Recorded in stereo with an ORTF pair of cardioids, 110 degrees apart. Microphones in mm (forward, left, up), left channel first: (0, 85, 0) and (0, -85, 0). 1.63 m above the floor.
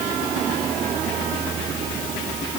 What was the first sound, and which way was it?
Only background noise.